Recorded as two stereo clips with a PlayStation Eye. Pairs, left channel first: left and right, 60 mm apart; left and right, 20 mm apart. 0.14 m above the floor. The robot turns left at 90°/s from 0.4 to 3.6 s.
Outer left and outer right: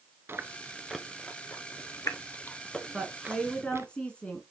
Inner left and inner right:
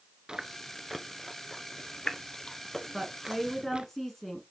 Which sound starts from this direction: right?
Chewing, at 0.3 s.